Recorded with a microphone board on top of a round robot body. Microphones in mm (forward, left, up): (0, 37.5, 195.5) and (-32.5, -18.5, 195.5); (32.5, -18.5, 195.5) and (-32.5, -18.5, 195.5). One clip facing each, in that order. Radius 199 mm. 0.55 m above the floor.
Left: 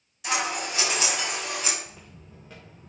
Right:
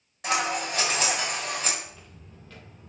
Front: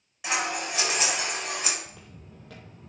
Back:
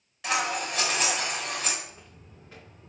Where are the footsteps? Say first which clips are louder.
Left 1 dB, front 2 dB; straight ahead, 0.9 m; by 2.9 s 20° right, 1.5 m.